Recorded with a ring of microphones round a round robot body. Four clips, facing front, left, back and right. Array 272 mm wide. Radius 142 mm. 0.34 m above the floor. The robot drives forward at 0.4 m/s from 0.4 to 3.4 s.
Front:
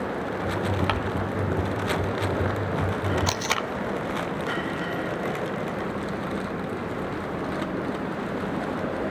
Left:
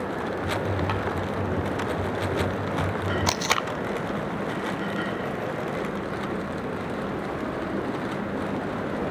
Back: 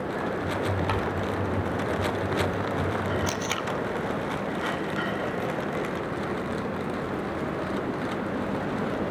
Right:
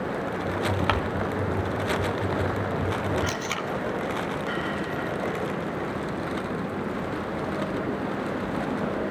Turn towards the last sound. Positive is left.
turn(degrees=60)